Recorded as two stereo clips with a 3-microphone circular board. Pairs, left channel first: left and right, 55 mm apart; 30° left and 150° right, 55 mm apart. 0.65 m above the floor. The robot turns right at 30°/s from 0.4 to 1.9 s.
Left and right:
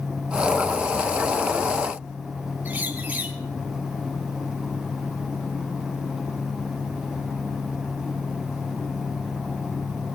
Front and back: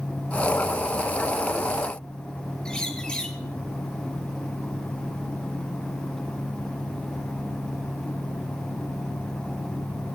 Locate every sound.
2.6 s a bird: 40° right, 1.9 m